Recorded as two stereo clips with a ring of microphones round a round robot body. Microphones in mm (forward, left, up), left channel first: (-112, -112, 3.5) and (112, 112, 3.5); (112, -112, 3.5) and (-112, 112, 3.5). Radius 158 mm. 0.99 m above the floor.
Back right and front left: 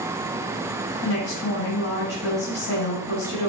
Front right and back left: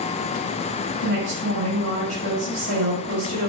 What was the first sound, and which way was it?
A woman speaking, straight behind.